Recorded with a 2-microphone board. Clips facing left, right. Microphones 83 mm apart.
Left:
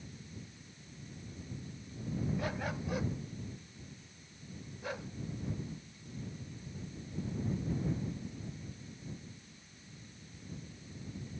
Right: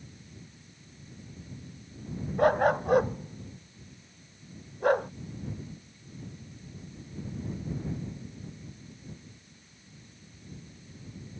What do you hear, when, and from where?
2.4 s a dog barking: 55° right (ahead or behind)